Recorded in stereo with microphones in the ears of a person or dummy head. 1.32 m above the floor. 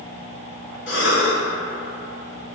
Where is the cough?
65° left (ahead or behind), 1.2 m.